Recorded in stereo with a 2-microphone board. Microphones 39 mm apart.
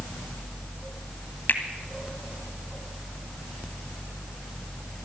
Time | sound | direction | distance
1.5 | a finger snap | 55° left (ahead or behind) | 1.9 m